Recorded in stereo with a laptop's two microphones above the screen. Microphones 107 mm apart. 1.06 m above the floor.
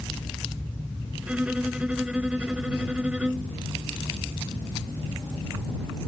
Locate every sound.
1.2 s a violin: 10° right (ahead or behind)